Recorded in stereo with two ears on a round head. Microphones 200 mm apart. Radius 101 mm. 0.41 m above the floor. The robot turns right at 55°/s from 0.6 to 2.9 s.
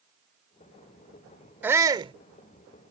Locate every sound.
1.6 s a shout: 10° right (ahead or behind); by 2.1 s 25° right (ahead or behind)